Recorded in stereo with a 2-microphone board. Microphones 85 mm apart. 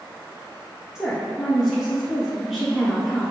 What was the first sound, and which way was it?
A woman speaking, 5° right (ahead or behind).